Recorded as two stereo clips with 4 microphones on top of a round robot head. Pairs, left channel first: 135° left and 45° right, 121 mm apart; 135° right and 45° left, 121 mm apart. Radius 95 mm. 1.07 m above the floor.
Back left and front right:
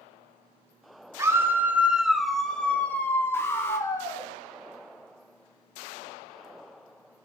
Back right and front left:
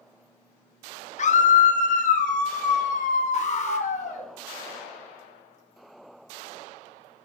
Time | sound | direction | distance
1.2 | a scream | 115° right | 2 m
3.3 | an alarm | 155° right | 3 m